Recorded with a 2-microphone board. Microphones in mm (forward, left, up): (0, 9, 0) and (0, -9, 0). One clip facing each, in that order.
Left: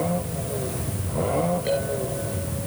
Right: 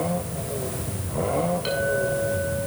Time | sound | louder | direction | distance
1.6 | a clink | right 2 dB | 60° right (ahead or behind) | 7 m